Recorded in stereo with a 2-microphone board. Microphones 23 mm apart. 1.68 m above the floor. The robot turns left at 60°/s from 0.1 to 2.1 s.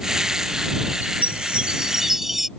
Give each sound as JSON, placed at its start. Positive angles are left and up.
{"t": 1.0, "sound": "a chime", "azimuth_deg": -100}